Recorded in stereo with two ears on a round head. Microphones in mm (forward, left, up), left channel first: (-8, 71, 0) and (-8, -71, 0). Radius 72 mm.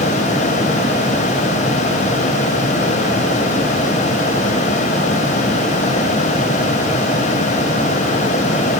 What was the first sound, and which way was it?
Only background noise.